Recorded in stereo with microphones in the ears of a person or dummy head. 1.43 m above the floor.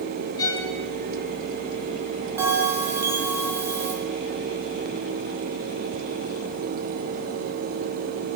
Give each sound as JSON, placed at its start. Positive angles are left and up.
{"t": 0.4, "sound": "a violin", "side_deg": 20, "distance_m": 1.4}
{"t": 2.4, "sound": "a bell", "side_deg": -15, "distance_m": 1.4}